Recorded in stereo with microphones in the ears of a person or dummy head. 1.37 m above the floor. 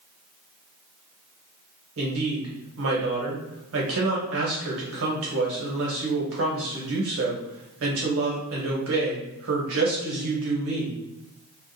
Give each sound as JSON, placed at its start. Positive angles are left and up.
{"t": 2.0, "sound": "a woman speaking", "side_deg": -80, "distance_m": 1.1}